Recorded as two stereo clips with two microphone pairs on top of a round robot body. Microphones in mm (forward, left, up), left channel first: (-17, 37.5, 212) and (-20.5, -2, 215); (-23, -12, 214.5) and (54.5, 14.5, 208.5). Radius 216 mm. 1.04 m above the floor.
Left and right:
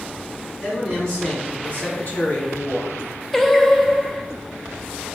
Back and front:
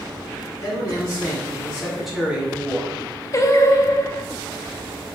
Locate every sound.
0.6 s a man speaking: 150° left, 1.9 m; by 3.0 s 60° left, 1.3 m
3.3 s singing: 165° left, 0.7 m